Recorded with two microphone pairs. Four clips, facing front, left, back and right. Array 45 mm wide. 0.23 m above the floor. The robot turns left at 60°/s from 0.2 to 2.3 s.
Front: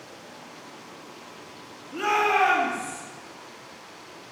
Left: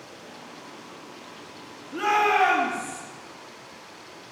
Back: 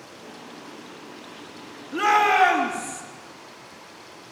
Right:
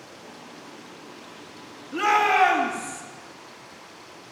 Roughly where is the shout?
Behind.